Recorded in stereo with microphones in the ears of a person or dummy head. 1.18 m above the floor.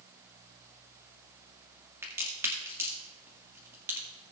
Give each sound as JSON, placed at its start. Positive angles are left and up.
{"t": 2.0, "sound": "a crack", "side_deg": -20, "distance_m": 1.9}